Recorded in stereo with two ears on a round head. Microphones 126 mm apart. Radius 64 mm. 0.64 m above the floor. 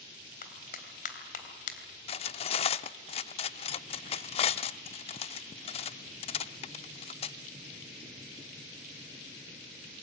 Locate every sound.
0.4 s a clap: 65° left (ahead or behind), 3.5 m
2.1 s cutlery clinking: 45° left (ahead or behind), 0.7 m